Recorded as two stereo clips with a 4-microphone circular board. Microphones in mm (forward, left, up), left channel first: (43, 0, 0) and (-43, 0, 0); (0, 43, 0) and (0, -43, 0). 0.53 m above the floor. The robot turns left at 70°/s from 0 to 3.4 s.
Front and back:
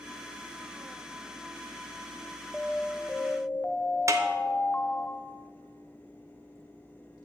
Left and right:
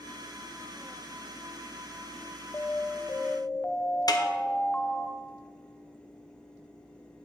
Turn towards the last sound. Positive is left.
turn(degrees=130)